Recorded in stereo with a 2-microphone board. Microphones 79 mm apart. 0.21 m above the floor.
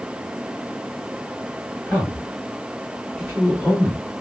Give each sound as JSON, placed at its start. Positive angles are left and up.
{"t": 1.9, "sound": "a man speaking", "side_deg": 20, "distance_m": 1.7}